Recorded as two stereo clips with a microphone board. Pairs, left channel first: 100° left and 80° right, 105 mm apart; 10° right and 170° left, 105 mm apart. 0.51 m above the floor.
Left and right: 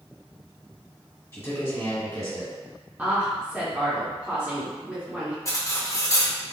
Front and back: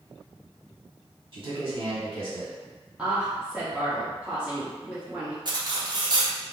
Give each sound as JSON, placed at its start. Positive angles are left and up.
{"t": 1.3, "sound": "a man speaking", "azimuth_deg": 155, "distance_m": 1.7}
{"t": 3.0, "sound": "a woman speaking", "azimuth_deg": -125, "distance_m": 1.2}
{"t": 5.5, "sound": "cutlery clinking", "azimuth_deg": 145, "distance_m": 0.6}